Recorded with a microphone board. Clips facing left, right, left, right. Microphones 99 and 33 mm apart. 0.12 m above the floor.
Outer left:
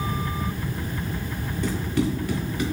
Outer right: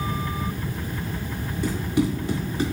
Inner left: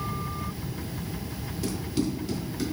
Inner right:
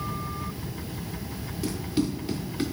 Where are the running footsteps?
5° right (ahead or behind), 1.5 m; by 2.6 s 30° right (ahead or behind), 1.2 m.